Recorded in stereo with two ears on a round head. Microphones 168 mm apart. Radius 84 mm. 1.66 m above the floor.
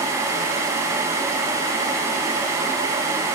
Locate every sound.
Only background noise.